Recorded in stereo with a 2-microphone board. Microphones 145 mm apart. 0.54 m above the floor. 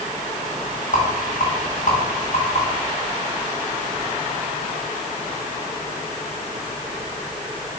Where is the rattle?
60° left (ahead or behind), 2.5 m.